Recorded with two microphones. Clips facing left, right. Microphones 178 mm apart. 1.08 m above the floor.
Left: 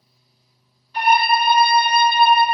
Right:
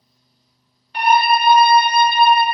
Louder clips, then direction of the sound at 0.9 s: Right 2 dB; 60° right (ahead or behind).